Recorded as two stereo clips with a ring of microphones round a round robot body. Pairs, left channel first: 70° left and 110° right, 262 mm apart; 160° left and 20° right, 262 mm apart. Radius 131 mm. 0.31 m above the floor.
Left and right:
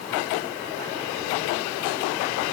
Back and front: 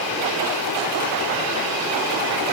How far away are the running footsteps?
I don't hear running footsteps.